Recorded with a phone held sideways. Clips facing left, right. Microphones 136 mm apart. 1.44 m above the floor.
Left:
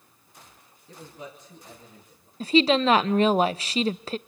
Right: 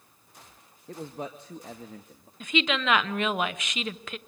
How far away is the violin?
I don't hear a violin.